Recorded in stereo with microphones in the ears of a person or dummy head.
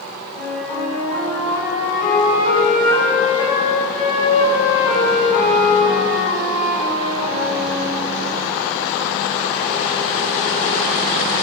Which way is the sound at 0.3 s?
Centre (ahead or behind).